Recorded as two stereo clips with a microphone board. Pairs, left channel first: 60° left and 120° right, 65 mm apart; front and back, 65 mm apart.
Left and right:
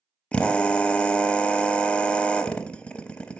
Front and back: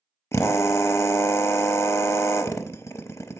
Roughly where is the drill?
Ahead.